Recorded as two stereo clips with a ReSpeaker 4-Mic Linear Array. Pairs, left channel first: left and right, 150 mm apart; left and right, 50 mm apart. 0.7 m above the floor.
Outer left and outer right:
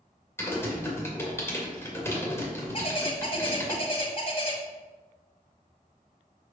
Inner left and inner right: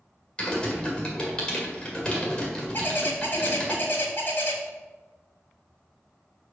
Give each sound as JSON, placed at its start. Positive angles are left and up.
{"t": 0.4, "sound": "typing on a keyboard", "side_deg": 15, "distance_m": 1.8}
{"t": 2.7, "sound": "a bird", "side_deg": 40, "distance_m": 1.6}